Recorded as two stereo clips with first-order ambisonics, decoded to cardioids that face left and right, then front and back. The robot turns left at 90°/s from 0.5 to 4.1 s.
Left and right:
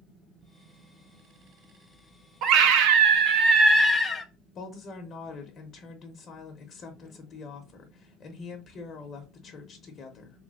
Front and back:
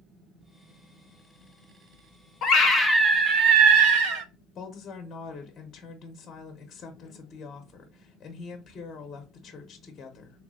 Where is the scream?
45° right, 0.7 m; by 4.2 s 160° left, 0.7 m.